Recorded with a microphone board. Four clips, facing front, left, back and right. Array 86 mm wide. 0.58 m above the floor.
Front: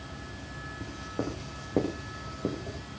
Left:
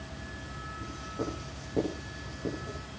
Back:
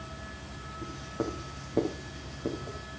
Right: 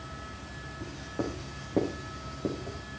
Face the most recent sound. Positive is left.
turn(degrees=-30)